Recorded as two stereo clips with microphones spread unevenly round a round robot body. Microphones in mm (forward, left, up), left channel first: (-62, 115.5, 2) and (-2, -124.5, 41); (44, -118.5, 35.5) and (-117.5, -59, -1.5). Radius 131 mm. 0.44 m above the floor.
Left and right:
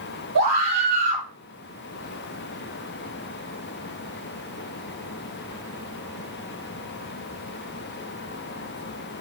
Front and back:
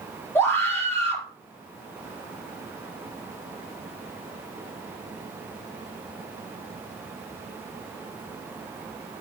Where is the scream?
95° right, 9.5 m.